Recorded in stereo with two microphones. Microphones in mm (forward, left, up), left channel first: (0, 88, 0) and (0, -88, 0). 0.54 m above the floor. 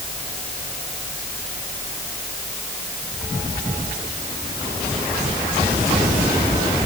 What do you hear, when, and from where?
Only background noise.